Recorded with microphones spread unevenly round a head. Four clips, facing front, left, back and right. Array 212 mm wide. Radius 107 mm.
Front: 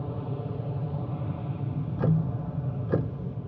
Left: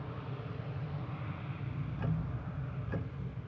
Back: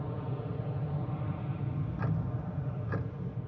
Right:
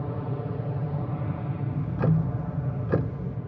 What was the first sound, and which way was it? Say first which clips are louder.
An aircraft: right 11 dB, front 4 dB; 75° right.